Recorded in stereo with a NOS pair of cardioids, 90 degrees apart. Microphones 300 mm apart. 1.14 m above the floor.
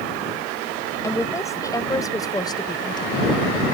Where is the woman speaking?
10° left; by 3.2 s 15° left.